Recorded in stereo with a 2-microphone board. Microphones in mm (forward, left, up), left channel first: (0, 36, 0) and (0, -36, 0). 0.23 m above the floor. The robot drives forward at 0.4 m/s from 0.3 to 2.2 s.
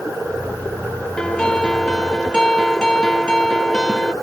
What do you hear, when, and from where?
1.2 s a guitar: 10° left (ahead or behind)